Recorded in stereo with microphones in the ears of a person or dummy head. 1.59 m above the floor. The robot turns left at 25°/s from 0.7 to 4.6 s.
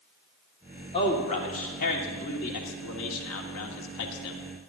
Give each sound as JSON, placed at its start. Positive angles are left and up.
{"t": 0.9, "sound": "a man speaking", "side_deg": 30, "distance_m": 1.7}